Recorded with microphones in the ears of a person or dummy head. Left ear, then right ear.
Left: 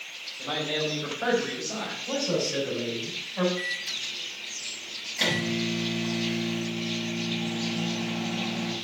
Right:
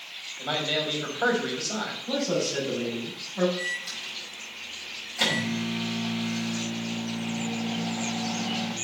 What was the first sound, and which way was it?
A man speaking, 25° right (ahead or behind).